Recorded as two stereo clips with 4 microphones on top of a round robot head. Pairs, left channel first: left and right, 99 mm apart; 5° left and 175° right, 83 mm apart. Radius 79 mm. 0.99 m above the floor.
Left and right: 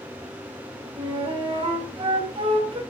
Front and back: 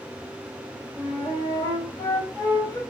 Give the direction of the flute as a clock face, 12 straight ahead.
2 o'clock.